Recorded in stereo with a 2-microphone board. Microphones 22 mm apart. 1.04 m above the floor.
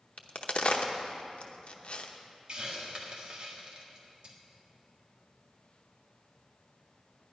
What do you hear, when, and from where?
0.2 s a crack: 55° left (ahead or behind), 0.8 m
2.5 s a hiss: 45° right (ahead or behind), 1.6 m